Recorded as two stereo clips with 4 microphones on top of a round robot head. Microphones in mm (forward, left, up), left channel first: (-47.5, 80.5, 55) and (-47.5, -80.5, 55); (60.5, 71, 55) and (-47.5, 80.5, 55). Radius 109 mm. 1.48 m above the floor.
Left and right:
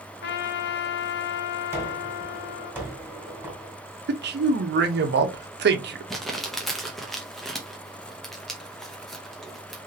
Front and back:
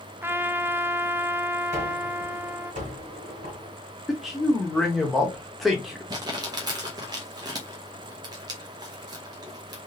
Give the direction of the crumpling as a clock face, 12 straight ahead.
6 o'clock.